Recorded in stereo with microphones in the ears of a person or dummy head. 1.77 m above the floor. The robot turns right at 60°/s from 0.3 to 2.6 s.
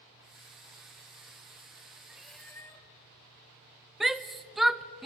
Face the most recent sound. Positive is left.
turn(degrees=-5)  # may be behind; listen again after turning